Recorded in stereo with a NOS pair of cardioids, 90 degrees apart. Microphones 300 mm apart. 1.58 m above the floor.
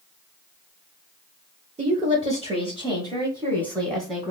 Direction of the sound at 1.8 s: 20° right.